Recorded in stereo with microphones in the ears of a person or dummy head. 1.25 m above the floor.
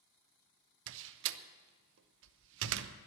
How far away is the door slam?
About 0.8 m.